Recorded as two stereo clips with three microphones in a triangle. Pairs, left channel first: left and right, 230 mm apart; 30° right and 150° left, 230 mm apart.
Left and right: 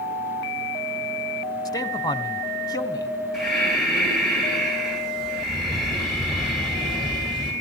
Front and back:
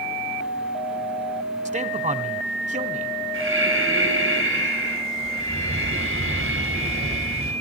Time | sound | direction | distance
1.6 | a man speaking | 150° left | 1.2 m
3.3 | breathing | straight behind | 10 m